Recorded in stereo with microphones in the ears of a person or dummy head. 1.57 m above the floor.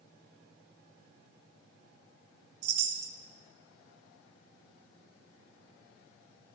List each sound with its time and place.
2.6 s a chime: 70° right (ahead or behind), 1.0 m